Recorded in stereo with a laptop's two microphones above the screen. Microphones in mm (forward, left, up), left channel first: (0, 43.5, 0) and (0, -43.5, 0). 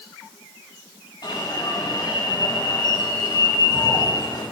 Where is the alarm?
60° left (ahead or behind), 5.5 m.